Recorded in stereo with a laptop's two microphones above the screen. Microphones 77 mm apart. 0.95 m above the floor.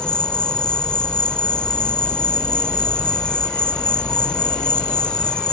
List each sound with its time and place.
0.0 s an insect: 10° left (ahead or behind)